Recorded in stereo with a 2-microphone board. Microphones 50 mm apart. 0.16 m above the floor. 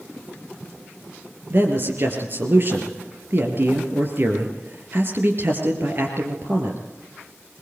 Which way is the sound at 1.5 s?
45° right (ahead or behind).